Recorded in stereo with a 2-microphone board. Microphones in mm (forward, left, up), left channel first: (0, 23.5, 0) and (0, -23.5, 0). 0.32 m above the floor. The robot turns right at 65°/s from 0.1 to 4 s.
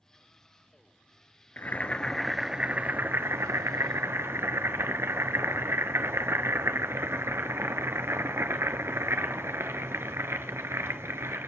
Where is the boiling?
130° left, 0.8 m; by 11.5 s 70° right, 0.8 m.